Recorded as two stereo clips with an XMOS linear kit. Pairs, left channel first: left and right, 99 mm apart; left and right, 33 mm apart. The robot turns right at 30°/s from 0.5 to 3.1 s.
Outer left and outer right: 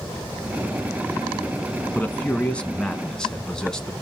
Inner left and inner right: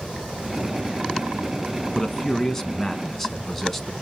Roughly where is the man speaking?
Centre.